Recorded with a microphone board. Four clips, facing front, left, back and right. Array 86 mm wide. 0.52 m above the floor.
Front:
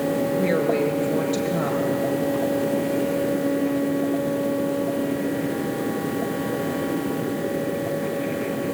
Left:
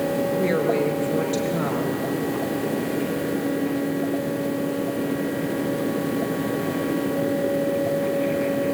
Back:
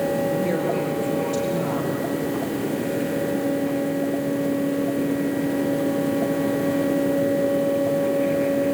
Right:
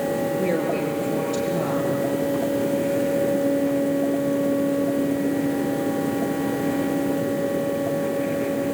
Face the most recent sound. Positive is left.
turn(degrees=50)